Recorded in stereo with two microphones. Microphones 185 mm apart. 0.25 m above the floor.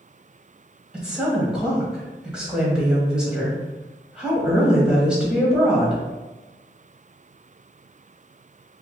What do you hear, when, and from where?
0.9 s a woman speaking: 5° right (ahead or behind), 1.0 m